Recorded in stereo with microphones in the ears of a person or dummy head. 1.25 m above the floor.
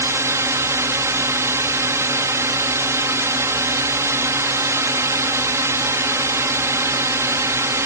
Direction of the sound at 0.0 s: 15° right (ahead or behind).